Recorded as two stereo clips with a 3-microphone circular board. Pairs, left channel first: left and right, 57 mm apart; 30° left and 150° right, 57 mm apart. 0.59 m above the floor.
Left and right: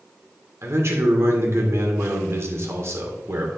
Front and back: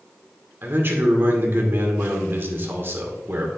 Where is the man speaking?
110° right, 1.9 m.